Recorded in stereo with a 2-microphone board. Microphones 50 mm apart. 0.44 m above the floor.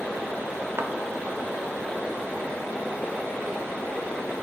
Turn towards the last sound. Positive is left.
turn(degrees=-55)  # may be behind; listen again after turning